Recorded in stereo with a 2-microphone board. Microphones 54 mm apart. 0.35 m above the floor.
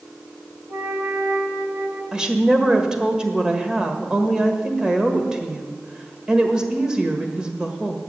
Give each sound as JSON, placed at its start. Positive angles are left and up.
{"t": 0.7, "sound": "a flute", "side_deg": -50, "distance_m": 1.4}
{"t": 2.1, "sound": "a woman speaking", "side_deg": -15, "distance_m": 1.3}